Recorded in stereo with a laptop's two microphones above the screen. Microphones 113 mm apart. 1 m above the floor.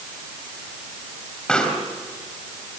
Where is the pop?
10° left (ahead or behind), 3.5 m.